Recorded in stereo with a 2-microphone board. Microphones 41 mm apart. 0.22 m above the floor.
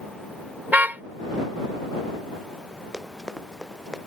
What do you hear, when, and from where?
0.7 s a car horn: 40° right (ahead or behind)
2.9 s running footsteps: 5° right (ahead or behind)